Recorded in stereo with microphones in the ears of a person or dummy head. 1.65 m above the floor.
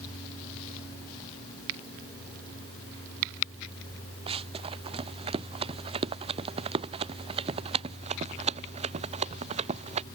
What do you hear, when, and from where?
4.3 s running footsteps: 30° right (ahead or behind); by 10.1 s 40° right (ahead or behind)